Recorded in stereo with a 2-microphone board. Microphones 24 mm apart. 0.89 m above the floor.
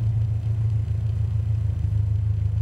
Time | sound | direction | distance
0.0 | an engine running | 20° right (ahead or behind) | 1.6 m